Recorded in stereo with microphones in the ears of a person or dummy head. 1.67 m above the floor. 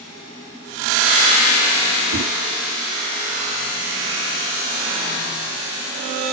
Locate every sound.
2.1 s a whoosh: 85° right, 6 m